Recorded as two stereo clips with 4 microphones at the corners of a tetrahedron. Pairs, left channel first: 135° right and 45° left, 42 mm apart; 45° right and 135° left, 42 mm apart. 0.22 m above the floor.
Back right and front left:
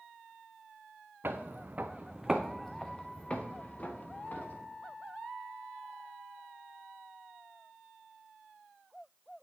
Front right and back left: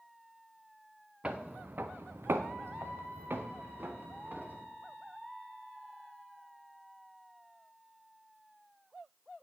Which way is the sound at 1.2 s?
75° left.